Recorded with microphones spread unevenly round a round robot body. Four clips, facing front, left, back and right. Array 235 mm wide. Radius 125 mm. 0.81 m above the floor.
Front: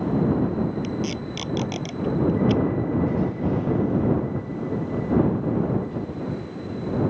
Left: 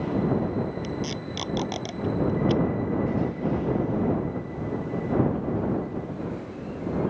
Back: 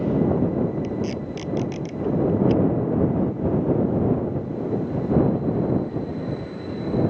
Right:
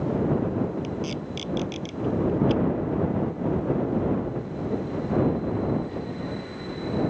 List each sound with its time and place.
0.8 s tape being pulled: 50° left